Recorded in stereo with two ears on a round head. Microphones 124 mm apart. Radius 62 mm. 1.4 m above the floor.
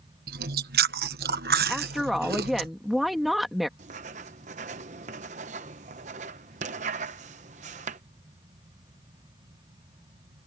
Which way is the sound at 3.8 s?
55° right (ahead or behind).